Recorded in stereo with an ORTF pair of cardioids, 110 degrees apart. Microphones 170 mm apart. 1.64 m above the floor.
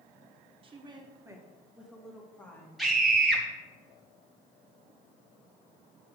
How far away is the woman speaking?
About 1.3 m.